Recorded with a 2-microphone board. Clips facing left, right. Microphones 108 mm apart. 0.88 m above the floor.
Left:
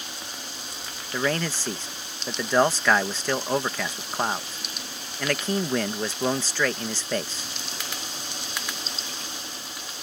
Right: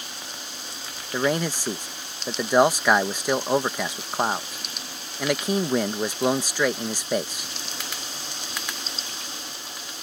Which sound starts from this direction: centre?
A man speaking, at 1.1 s.